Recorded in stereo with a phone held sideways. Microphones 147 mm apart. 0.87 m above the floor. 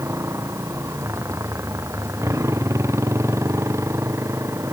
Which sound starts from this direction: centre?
A motorcycle, at 0.0 s.